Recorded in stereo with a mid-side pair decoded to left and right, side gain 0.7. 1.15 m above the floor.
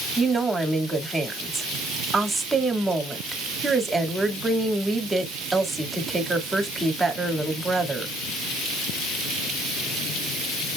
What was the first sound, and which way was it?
A woman speaking, 10° right.